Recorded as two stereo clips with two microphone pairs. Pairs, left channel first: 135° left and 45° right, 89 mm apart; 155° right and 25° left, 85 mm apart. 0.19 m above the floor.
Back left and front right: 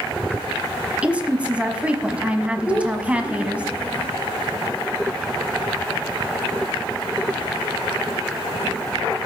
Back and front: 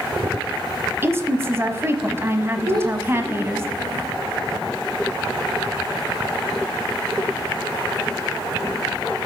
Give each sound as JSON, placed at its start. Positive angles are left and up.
{"t": 1.0, "sound": "a woman speaking", "azimuth_deg": 15, "distance_m": 1.1}
{"t": 2.7, "sound": "a child speaking", "azimuth_deg": 60, "distance_m": 5.5}